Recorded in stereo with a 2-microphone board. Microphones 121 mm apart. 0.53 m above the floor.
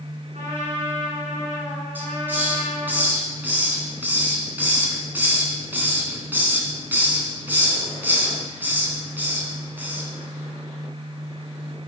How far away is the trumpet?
About 5.5 m.